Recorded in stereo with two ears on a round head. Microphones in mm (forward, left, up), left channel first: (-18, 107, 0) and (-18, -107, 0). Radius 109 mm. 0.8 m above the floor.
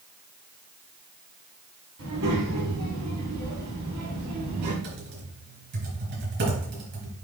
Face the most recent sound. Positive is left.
turn(degrees=-50)  # may be behind; listen again after turning